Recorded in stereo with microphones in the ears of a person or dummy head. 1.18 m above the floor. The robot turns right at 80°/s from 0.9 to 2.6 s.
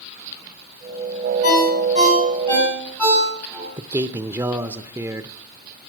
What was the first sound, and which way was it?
A ringtone, 85° left.